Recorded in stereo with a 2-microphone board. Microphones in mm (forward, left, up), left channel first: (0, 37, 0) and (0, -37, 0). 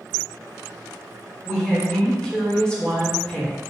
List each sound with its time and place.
1.4 s a woman speaking: 10° left (ahead or behind), 1.4 m